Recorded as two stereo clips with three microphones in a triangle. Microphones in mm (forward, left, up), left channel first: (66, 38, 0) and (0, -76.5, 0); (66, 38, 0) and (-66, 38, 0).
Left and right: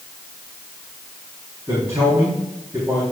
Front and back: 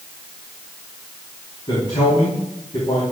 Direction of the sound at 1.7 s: 55° right.